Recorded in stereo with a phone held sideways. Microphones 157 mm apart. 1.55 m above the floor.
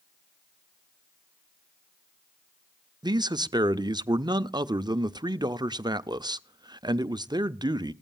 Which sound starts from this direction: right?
A man speaking, at 3.0 s.